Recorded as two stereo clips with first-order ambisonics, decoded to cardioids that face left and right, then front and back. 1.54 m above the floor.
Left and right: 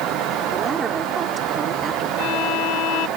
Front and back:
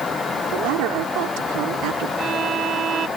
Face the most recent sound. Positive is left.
turn(degrees=120)